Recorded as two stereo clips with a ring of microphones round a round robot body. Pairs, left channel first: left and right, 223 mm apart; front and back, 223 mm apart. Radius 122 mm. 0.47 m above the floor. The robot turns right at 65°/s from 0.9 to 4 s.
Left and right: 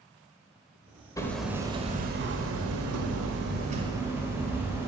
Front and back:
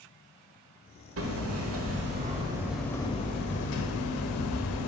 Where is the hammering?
165° left, 1.2 m; by 4.9 s 10° right, 1.2 m.